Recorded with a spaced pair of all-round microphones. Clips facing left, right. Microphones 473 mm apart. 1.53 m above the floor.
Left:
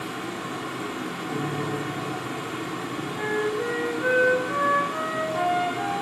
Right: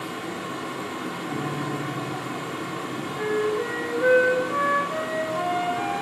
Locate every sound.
0.0 s a fan: 25° left (ahead or behind), 1.0 m
1.3 s a piano: 10° right (ahead or behind), 1.4 m
3.1 s a flute: 30° left (ahead or behind), 0.8 m